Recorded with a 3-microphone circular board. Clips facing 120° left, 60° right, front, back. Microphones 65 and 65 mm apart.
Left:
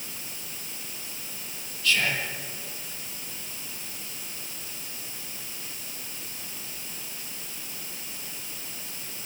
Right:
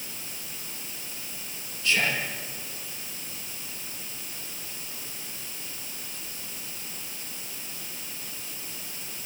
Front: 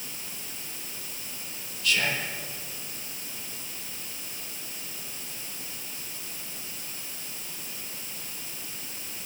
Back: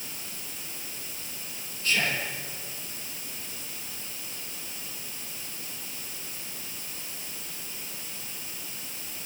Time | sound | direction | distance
1.8 | whispering | 125° right | 6 m